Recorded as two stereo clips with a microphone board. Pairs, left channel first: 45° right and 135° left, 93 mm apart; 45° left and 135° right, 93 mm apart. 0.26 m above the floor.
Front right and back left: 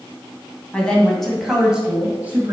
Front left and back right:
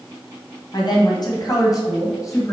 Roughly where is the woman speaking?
Ahead left.